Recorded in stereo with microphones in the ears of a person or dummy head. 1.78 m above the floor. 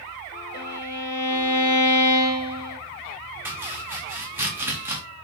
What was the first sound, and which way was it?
A violin, 20° left (ahead or behind).